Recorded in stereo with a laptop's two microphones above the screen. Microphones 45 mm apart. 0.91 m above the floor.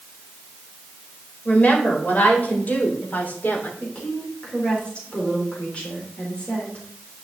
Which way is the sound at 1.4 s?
35° left (ahead or behind).